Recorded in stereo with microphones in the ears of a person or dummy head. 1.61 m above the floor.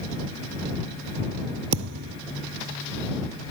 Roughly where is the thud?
Right.